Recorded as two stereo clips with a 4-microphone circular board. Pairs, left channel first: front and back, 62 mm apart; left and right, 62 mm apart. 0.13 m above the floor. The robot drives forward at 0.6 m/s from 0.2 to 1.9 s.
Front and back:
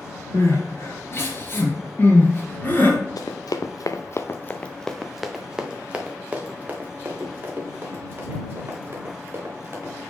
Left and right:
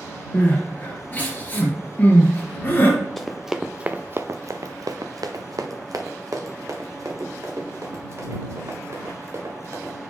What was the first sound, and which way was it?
Crying, 25° left.